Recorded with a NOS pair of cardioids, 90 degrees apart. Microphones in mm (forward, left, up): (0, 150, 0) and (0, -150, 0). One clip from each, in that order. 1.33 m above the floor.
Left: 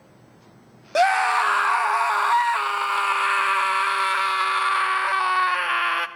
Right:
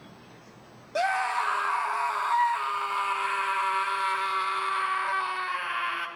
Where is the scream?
45° left, 0.8 m.